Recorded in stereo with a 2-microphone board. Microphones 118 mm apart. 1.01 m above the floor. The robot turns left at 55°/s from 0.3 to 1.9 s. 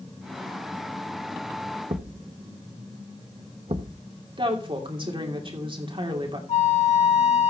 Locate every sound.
1.9 s a thud: 50° right (ahead or behind), 0.8 m
4.4 s a woman speaking: 45° right (ahead or behind), 2.5 m
6.5 s a flute: 65° left (ahead or behind), 1.6 m